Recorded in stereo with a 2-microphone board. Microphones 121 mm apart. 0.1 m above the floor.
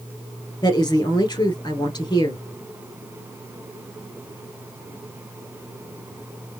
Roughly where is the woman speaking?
Left.